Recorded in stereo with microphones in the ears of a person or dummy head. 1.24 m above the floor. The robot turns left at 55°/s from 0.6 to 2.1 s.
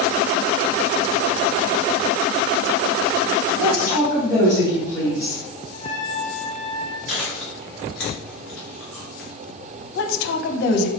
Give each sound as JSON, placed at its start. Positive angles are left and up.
{"t": 3.6, "sound": "a woman speaking", "side_deg": -15, "distance_m": 1.5}
{"t": 5.7, "sound": "a trumpet", "side_deg": 25, "distance_m": 1.2}
{"t": 7.1, "sound": "chewing", "side_deg": 5, "distance_m": 0.9}
{"t": 9.9, "sound": "a woman speaking", "side_deg": 75, "distance_m": 0.7}